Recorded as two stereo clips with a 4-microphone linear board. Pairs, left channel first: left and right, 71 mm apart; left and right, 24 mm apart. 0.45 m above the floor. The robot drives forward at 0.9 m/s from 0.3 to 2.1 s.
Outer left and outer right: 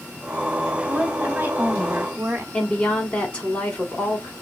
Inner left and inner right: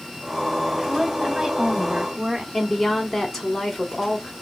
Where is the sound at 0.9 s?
15° right (ahead or behind), 1.4 m; by 2.4 s 25° right (ahead or behind), 0.8 m.